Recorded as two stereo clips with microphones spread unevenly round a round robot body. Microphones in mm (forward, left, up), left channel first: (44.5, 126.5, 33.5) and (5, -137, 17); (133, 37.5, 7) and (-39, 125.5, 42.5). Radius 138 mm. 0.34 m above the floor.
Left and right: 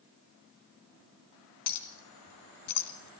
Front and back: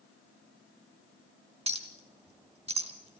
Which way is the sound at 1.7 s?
90° left.